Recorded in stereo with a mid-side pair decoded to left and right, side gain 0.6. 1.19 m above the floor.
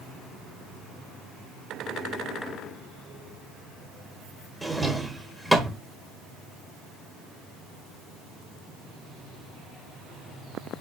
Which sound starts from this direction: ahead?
A drawer, at 4.6 s.